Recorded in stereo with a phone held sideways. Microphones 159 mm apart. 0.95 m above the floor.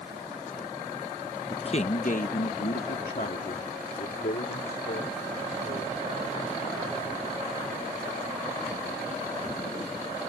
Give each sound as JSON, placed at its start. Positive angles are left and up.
{"t": 1.5, "sound": "a man speaking", "side_deg": 30}